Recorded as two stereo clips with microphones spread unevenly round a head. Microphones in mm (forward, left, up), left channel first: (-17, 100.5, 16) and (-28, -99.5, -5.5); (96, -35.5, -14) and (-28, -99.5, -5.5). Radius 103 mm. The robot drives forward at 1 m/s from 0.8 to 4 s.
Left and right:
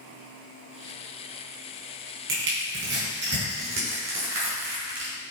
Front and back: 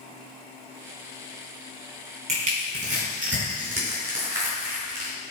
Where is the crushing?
120° right, 4 m; by 5.1 s 135° right, 5 m.